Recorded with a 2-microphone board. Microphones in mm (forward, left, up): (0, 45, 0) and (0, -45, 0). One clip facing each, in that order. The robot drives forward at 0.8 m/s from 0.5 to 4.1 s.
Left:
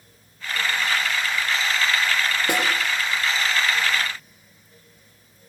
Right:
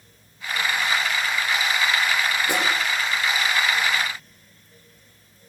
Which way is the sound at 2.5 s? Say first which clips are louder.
Left 2 dB; 65° left (ahead or behind).